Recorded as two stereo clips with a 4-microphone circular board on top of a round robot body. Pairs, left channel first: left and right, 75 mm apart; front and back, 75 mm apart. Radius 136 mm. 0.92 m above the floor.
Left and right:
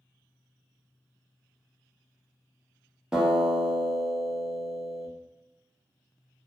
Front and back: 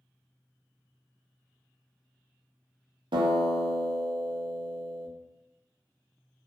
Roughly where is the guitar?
Behind.